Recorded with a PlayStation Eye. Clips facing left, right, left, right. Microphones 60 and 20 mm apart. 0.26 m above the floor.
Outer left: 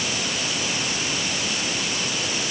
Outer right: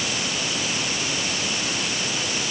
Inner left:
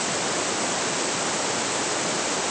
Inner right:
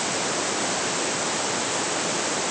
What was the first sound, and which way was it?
Only background noise.